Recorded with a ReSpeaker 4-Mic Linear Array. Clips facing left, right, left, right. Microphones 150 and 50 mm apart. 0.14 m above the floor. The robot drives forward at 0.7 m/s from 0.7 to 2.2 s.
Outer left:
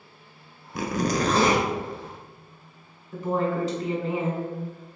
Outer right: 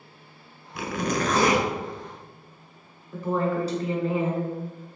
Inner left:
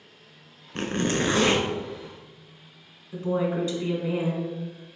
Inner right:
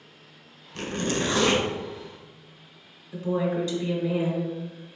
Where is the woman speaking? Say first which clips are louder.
Even, even; 20° left (ahead or behind), 1.3 m.